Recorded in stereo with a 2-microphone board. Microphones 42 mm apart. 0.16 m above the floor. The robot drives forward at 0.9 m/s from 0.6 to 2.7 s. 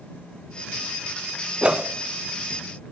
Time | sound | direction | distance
1.6 | a whoosh | 25° right (ahead or behind) | 0.7 m